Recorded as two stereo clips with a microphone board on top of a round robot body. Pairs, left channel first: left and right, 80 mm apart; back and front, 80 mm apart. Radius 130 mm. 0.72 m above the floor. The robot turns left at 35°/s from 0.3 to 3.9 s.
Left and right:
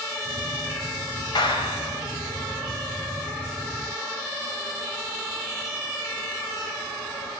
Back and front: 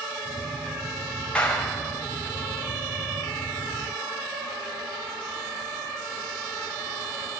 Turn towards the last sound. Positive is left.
turn(degrees=15)